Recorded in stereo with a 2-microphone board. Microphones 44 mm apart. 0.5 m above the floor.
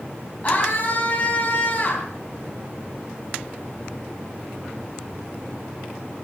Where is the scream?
35° left (ahead or behind), 4 m.